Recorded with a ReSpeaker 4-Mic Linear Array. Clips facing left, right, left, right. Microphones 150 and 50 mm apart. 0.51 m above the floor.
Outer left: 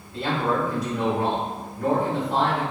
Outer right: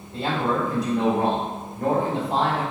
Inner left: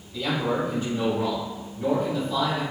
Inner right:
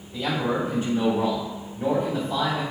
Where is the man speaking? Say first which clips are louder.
Even, even; 20° right (ahead or behind), 1.9 m.